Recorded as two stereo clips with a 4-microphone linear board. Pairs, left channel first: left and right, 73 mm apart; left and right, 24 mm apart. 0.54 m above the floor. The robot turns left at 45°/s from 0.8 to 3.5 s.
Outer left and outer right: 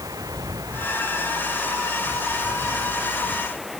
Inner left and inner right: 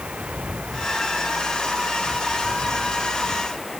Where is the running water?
55° right; by 3.8 s 175° right.